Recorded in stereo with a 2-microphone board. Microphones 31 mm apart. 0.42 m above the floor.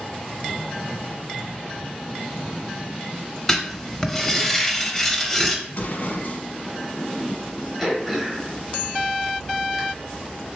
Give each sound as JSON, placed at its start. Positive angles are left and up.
{"t": 3.5, "sound": "writing", "side_deg": 10, "distance_m": 0.7}
{"t": 5.7, "sound": "an explosion", "side_deg": 65, "distance_m": 0.7}
{"t": 7.8, "sound": "throat clearing", "side_deg": -5, "distance_m": 1.2}